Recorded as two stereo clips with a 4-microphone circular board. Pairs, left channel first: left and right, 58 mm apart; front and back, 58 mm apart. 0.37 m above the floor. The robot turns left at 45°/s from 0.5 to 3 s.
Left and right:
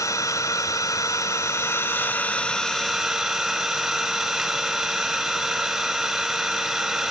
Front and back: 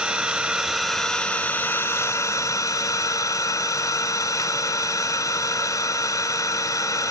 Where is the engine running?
110° left, 1.2 m; by 7.1 s 5° right, 1.2 m.